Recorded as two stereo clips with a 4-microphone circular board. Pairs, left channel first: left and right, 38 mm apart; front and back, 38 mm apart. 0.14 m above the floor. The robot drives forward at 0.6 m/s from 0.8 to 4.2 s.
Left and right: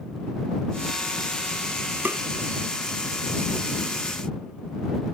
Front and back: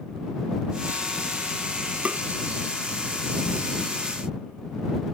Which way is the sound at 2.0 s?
125° right.